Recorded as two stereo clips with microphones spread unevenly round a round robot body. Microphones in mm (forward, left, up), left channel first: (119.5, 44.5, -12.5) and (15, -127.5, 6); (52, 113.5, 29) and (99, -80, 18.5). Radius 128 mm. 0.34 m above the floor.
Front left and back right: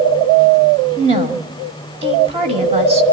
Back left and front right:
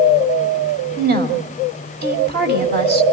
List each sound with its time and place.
1.0 s a woman speaking: 60° right, 2 m